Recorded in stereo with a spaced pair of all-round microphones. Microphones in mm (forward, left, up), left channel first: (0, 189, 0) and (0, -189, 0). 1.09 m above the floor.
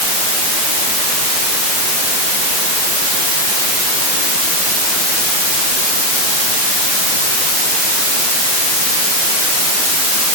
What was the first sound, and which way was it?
Only background noise.